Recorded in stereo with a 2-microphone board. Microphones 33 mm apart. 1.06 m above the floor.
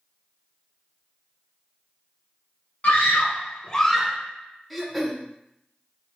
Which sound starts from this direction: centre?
Throat clearing, at 4.7 s.